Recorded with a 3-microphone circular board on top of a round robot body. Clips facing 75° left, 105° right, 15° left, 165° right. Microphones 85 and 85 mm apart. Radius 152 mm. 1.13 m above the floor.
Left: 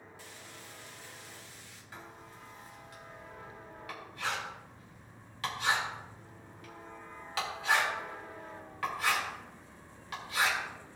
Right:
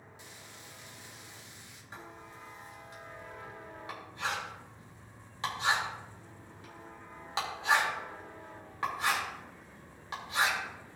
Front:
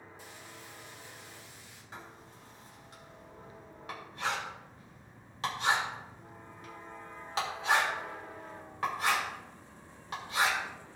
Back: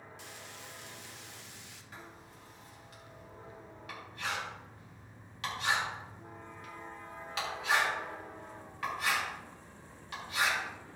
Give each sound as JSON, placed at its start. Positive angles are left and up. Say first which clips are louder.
{"t": 0.2, "sound": "frying", "louder": "left 1 dB, even", "azimuth_deg": -175, "distance_m": 1.3}
{"t": 1.9, "sound": "writing", "louder": "right 2 dB, front 3 dB", "azimuth_deg": -40, "distance_m": 3.5}